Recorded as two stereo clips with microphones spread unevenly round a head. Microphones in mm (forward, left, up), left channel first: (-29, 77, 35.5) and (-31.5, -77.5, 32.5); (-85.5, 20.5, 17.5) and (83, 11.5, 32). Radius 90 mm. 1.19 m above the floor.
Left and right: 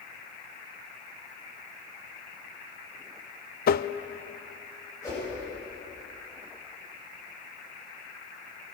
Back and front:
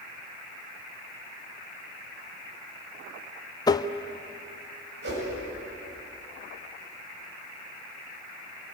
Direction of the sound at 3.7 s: 110° left.